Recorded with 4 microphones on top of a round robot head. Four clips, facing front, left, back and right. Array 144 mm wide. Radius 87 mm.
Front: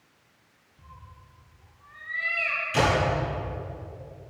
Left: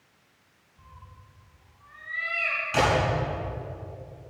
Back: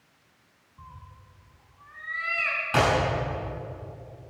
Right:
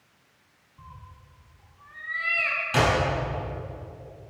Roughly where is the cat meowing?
Behind right.